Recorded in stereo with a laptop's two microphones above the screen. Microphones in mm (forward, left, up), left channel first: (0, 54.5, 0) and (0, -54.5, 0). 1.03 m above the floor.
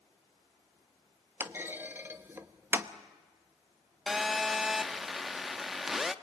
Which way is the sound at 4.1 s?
Centre (ahead or behind).